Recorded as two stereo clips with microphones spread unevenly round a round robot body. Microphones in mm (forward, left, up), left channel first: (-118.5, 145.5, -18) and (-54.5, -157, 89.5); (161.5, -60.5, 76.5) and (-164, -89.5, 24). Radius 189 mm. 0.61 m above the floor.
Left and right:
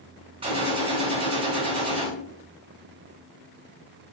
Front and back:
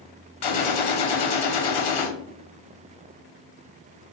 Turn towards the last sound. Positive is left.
turn(degrees=5)